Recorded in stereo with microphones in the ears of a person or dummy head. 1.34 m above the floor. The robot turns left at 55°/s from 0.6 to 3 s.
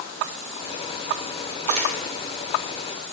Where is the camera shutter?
40° right (ahead or behind), 2.5 m; by 1.9 s 25° right (ahead or behind), 2.5 m.